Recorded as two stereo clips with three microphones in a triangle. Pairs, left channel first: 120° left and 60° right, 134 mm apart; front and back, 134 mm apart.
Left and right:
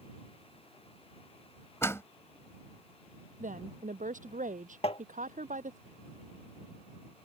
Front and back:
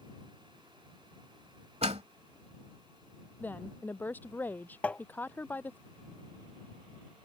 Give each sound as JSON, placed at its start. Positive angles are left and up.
{"t": 1.8, "sound": "a door slam", "azimuth_deg": -175}
{"t": 3.4, "sound": "a woman speaking", "azimuth_deg": -75}
{"t": 4.8, "sound": "tapping", "azimuth_deg": 80}